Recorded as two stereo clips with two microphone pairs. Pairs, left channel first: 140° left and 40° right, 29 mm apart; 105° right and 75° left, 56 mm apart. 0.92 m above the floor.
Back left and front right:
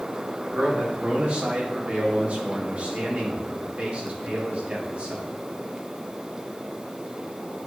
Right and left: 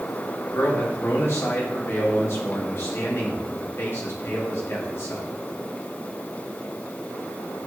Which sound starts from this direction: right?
A man speaking, at 0.5 s.